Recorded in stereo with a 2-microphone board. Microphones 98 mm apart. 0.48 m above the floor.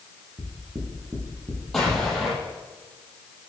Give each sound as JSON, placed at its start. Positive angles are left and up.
{"t": 0.4, "sound": "knocking", "side_deg": -35, "distance_m": 7.0}
{"t": 1.7, "sound": "an explosion", "side_deg": 5, "distance_m": 6.5}